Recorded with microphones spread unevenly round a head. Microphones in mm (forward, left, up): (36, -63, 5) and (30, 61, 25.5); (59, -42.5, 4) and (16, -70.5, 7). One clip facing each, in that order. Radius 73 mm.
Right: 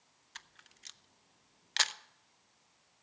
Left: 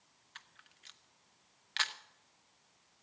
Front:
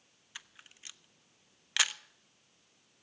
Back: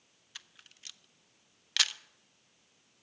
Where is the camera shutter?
40° right, 0.5 m.